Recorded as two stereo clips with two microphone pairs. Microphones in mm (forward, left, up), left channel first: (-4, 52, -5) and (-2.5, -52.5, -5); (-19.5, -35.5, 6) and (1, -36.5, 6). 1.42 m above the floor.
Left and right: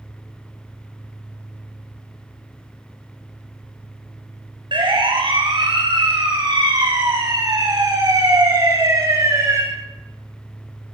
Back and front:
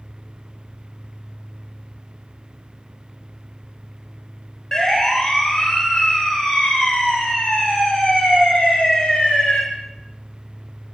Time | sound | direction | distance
4.7 | a siren | 115° right | 9.5 m